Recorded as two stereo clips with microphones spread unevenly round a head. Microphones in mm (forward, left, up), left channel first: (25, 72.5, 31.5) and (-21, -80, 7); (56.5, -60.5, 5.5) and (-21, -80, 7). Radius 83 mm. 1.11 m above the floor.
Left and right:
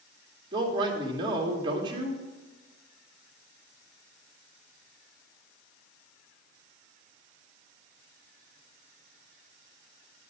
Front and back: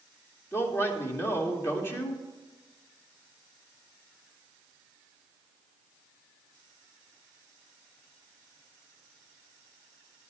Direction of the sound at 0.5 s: 45° right.